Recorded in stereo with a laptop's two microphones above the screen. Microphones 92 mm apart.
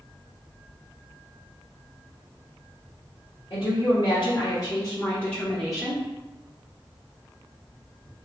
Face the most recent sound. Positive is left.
turn(degrees=-15)  # may be behind; listen again after turning